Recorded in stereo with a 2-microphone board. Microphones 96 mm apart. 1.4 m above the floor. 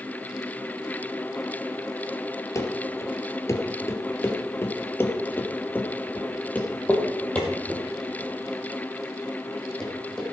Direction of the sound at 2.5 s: 30° left (ahead or behind).